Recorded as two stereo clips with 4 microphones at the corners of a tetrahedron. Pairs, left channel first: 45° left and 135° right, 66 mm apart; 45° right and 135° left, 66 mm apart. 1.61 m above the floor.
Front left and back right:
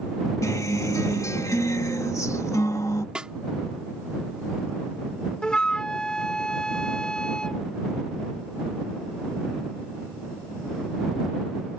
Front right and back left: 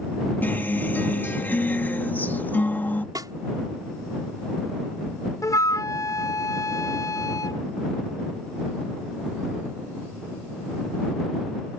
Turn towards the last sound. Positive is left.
turn(degrees=-30)